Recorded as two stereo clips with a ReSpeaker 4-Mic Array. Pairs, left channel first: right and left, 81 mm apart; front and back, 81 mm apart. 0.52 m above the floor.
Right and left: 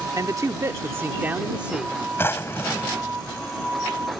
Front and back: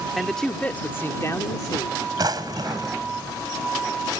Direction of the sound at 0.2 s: 90° left.